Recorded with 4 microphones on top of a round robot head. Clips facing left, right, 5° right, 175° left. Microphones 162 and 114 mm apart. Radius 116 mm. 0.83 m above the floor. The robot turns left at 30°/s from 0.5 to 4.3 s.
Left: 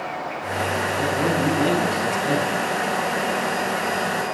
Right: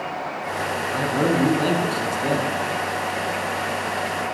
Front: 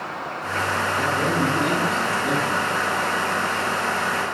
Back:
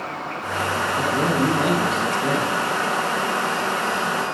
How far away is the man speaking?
About 10 m.